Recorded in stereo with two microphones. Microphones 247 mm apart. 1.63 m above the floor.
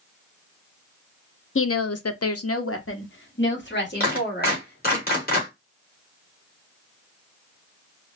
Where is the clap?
40° left (ahead or behind), 2 m.